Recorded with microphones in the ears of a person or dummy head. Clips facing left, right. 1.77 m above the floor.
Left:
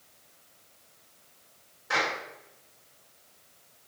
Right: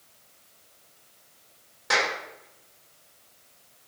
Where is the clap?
85° right, 6.5 m.